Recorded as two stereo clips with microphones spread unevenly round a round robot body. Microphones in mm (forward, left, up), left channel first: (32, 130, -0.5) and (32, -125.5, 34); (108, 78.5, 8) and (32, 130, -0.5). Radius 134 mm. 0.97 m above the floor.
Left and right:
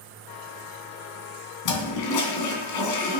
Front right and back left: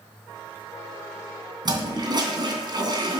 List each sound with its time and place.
1.6 s a toilet flushing: 105° left, 2.5 m